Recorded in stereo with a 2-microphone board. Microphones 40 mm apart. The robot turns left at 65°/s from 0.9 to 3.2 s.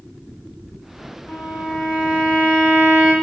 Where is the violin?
120° left, 0.8 m; by 3.1 s straight ahead, 0.8 m.